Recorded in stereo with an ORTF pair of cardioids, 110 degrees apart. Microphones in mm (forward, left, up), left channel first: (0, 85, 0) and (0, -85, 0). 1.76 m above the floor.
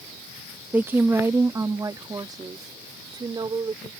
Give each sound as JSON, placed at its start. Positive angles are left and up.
{"t": 0.7, "sound": "a woman speaking", "azimuth_deg": -10}